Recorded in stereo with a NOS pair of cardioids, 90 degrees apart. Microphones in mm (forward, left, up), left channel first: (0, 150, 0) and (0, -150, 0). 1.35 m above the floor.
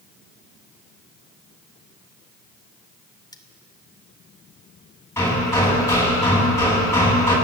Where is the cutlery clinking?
15° left, 2.5 m.